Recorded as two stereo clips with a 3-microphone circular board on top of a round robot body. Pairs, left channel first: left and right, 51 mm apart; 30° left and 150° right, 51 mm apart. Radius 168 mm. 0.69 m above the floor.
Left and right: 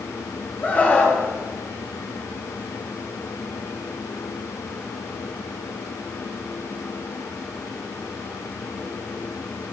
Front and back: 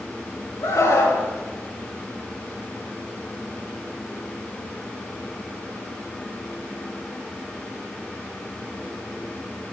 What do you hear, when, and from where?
0.6 s a scream: 30° left, 9 m